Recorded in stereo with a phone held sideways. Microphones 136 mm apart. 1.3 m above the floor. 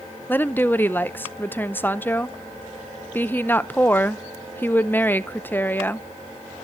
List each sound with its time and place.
0.3 s a woman speaking: 15° left (ahead or behind), 0.5 m